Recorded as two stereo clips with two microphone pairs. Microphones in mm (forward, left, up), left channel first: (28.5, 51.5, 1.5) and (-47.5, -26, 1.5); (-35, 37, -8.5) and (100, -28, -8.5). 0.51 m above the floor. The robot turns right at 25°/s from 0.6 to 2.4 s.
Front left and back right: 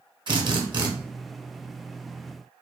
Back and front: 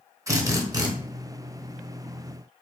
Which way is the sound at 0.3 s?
90° right.